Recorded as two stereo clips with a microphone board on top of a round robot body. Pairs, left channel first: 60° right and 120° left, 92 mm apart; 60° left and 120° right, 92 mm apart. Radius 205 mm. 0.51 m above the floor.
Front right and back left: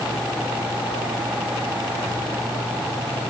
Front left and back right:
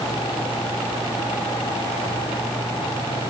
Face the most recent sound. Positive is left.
No sound to turn to.